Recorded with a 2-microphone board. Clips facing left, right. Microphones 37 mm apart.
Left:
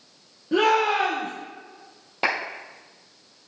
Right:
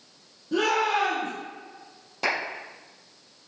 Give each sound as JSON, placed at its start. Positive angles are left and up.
{"t": 0.5, "sound": "a shout", "side_deg": 45, "distance_m": 2.5}
{"t": 2.2, "sound": "a clap", "side_deg": 35, "distance_m": 3.5}